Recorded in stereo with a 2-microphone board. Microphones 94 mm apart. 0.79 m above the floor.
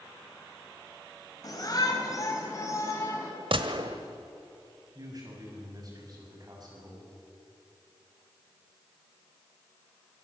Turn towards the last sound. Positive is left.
turn(degrees=-40)  # may be behind; listen again after turning